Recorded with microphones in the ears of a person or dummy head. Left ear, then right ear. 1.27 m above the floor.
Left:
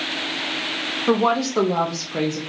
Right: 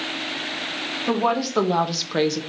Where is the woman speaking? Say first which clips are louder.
Left 3 dB; 10° left (ahead or behind), 0.8 m; by 2.4 s 55° right (ahead or behind), 0.8 m.